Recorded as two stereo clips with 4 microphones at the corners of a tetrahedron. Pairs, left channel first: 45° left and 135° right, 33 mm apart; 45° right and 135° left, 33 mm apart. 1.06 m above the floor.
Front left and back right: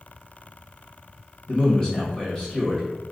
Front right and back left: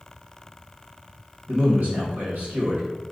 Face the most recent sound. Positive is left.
turn(degrees=115)